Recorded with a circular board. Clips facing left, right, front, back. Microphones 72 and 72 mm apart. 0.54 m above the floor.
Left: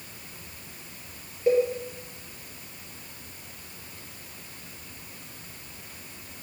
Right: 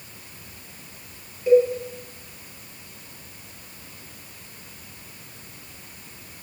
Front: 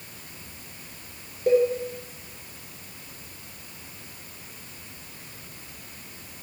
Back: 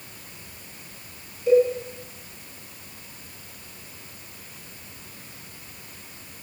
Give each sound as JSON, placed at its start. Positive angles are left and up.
{"t": 1.5, "sound": "a cowbell", "azimuth_deg": 30, "distance_m": 8.0}